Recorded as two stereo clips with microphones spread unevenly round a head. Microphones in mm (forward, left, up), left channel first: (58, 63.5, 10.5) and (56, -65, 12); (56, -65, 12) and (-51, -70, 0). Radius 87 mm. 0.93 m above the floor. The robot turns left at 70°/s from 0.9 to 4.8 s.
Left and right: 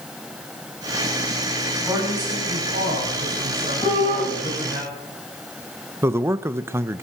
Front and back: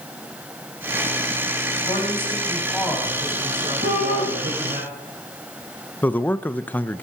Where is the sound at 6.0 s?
65° right, 0.7 m.